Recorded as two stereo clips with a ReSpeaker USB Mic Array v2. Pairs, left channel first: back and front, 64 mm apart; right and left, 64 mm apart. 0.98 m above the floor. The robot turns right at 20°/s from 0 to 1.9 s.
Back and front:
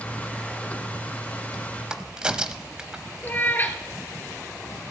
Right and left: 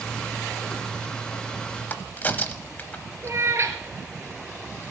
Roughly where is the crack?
Ahead right.